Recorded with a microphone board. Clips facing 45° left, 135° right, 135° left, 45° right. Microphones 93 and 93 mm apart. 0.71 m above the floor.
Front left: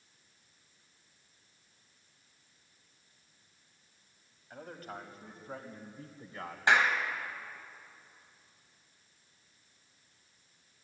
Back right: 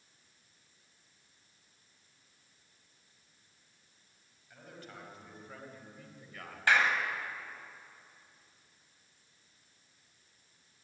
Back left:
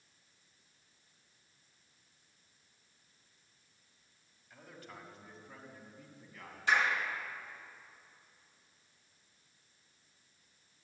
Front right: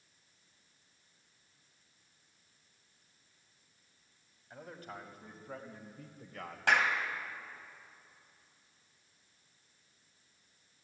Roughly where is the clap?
Ahead right.